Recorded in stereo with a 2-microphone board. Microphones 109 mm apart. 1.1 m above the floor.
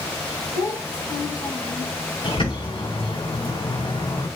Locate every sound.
0.6 s a child speaking: 35° left (ahead or behind), 3.5 m; by 1.9 s 45° left (ahead or behind), 5.5 m
2.2 s a bird: 55° left (ahead or behind), 6 m